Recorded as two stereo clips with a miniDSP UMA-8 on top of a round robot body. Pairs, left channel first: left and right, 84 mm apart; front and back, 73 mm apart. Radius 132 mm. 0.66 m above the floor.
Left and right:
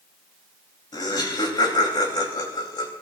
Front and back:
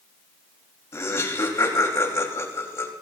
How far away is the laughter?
About 4.5 m.